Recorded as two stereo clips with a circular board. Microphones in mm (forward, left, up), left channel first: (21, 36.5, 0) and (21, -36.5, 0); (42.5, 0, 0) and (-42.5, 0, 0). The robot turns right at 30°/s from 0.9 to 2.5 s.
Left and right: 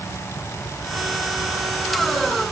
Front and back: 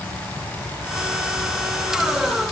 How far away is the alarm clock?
No alarm clock in this recording.